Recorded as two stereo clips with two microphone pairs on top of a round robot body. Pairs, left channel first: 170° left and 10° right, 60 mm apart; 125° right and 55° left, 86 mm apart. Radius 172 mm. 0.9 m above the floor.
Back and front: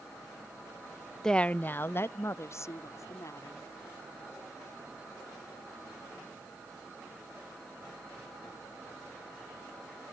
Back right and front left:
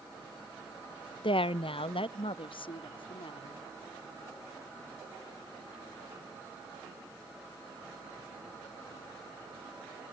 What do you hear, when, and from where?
1.2 s a woman speaking: 110° right; by 3.7 s 155° right